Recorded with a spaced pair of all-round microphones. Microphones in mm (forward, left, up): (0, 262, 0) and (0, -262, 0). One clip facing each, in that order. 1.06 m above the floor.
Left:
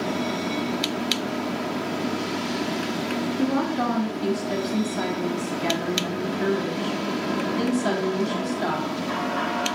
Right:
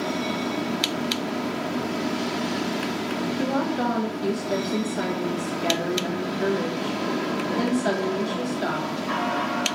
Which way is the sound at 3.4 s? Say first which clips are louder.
Left 2 dB; 25° left (ahead or behind).